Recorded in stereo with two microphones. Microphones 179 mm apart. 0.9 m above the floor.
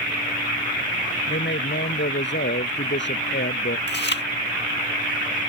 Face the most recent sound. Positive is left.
turn(degrees=70)  # may be behind; listen again after turning